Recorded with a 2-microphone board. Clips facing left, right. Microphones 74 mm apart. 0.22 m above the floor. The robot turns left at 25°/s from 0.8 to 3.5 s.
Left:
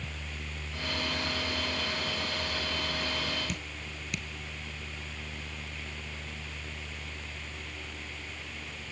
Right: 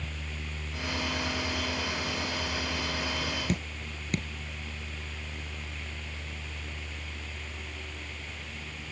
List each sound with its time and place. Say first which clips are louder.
3.5 s dripping: right 5 dB; 45° right (ahead or behind)